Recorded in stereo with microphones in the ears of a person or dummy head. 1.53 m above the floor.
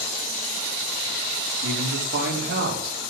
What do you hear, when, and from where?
1.6 s a man speaking: 70° right (ahead or behind), 4.5 m; by 3.0 s 65° right (ahead or behind), 6 m